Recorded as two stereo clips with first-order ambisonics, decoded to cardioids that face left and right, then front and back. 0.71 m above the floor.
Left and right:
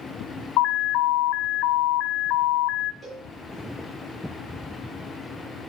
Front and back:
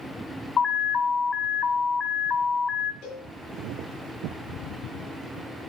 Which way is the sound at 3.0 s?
25° right.